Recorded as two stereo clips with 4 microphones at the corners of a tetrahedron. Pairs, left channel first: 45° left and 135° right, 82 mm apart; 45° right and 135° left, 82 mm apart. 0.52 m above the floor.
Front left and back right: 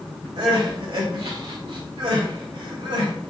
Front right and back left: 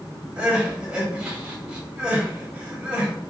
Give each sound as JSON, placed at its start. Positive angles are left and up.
{"t": 0.4, "sound": "crying", "azimuth_deg": -145, "distance_m": 1.2}